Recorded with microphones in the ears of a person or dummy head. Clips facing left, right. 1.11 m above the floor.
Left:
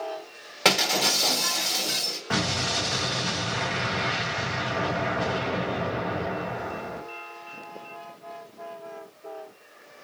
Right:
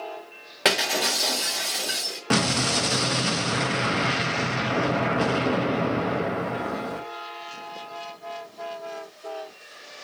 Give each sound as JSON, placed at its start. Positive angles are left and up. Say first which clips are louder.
{"t": 0.7, "sound": "breaking glass", "louder": "even", "side_deg": -10, "distance_m": 1.1}
{"t": 2.3, "sound": "an explosion", "louder": "right 5 dB", "side_deg": -50, "distance_m": 0.6}